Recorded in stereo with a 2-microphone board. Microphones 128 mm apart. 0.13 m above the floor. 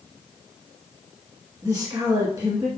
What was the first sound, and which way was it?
A woman speaking, 30° right (ahead or behind).